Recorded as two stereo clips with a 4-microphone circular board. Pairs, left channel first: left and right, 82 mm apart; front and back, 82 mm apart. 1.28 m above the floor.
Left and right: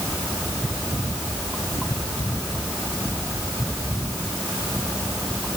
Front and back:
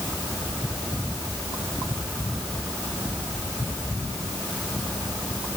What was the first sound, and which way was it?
Only background noise.